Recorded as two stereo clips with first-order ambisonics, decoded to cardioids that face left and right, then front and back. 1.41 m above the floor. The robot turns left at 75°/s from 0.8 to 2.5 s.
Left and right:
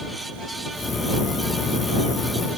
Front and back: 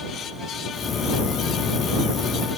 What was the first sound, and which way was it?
Only background noise.